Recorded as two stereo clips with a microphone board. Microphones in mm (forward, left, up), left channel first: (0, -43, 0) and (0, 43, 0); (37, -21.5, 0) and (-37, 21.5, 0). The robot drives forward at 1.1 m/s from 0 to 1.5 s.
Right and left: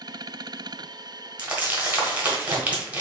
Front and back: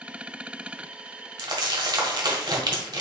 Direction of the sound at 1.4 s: 155° left.